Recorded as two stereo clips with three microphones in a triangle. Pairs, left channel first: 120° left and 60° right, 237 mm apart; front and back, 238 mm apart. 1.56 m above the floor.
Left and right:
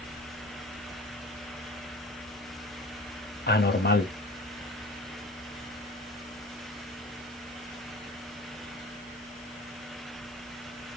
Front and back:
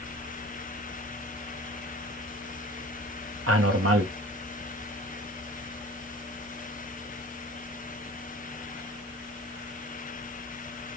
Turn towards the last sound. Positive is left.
turn(degrees=170)